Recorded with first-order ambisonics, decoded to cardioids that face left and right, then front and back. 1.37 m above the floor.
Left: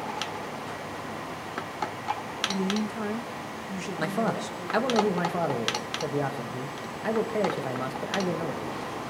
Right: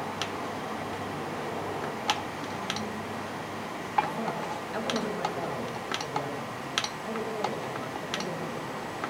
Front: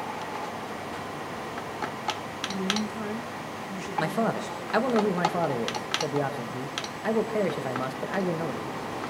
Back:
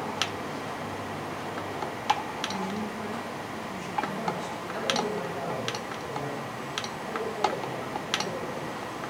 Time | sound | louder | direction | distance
2.5 | a woman speaking | left 3 dB, front 3 dB | 70° left | 1.2 m
4.0 | a man speaking | even, front 4 dB | 35° left | 1.3 m